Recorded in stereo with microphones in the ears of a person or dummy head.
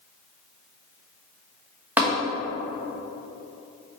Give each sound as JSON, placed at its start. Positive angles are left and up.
{"t": 2.0, "sound": "tapping", "side_deg": -15, "distance_m": 1.1}